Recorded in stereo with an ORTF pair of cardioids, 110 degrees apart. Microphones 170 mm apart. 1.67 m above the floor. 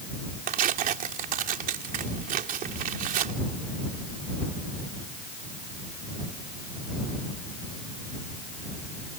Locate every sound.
0.5 s tearing paper: 60° right